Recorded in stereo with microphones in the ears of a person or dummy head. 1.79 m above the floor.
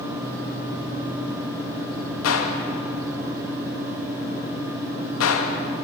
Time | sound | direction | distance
2.2 | a gunshot | 80° left | 2.5 m